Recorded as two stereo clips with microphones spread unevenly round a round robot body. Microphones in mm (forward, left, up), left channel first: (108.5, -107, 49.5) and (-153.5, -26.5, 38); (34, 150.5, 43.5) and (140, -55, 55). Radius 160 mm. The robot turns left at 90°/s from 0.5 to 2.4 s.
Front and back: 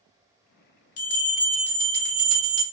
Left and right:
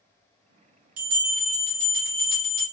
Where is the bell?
50° right, 1.1 m; by 2.6 s straight behind, 1.1 m.